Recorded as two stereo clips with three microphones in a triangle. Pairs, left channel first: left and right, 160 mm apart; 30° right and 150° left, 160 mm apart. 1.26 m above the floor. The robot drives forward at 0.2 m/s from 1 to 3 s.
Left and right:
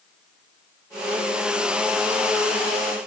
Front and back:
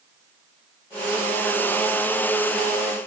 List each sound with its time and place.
Only background noise.